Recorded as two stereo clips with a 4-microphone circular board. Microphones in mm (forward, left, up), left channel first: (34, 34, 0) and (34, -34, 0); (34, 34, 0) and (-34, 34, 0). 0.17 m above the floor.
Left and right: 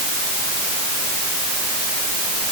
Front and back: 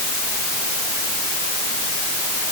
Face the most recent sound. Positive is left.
No sound to turn to.